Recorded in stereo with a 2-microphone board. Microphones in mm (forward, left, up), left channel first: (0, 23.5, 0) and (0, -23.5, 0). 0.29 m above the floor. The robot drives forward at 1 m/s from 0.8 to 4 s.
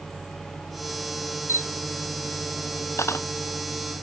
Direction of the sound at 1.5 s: 70° left (ahead or behind).